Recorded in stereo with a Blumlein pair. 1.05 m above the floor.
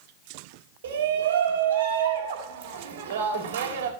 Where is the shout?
60° right, 4 m.